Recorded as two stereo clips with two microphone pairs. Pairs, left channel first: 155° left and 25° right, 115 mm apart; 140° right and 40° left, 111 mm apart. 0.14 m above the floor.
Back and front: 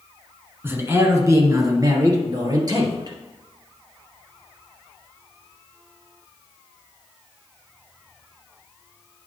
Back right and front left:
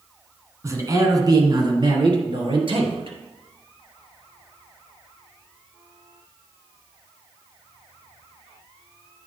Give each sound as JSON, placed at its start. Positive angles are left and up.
{"t": 0.6, "sound": "a man speaking", "azimuth_deg": 15, "distance_m": 1.4}